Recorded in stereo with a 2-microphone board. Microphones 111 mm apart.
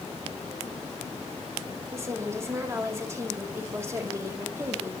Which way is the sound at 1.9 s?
25° right (ahead or behind).